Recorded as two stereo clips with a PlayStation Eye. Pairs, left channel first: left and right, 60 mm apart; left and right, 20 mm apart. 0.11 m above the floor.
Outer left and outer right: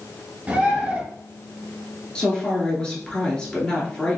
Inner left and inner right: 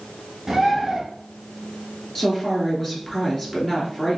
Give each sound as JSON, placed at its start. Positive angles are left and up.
{"t": 0.5, "sound": "a bird", "side_deg": -20, "distance_m": 1.8}
{"t": 2.1, "sound": "a woman speaking", "side_deg": 15, "distance_m": 1.4}